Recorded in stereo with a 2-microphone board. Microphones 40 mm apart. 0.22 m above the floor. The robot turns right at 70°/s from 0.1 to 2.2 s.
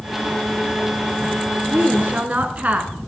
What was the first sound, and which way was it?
A woman speaking, 90° right.